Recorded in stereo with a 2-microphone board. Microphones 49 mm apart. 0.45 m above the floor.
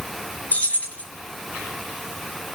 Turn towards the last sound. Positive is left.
turn(degrees=30)  # may be behind; listen again after turning